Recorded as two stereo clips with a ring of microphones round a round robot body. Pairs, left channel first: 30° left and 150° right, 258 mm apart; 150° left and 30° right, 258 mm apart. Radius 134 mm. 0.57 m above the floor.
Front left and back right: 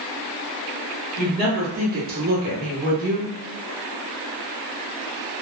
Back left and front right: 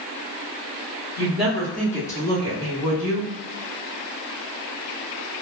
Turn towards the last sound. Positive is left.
turn(degrees=170)